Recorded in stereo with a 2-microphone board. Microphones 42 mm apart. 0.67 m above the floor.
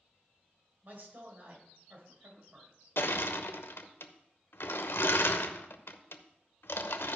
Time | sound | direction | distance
0.8 | a man speaking | 50° right (ahead or behind) | 3.5 m
3.0 | crushing | 80° left | 0.8 m